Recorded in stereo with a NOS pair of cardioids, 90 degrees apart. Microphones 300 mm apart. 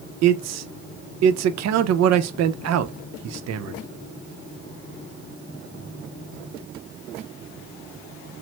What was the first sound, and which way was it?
A man speaking, 60° right.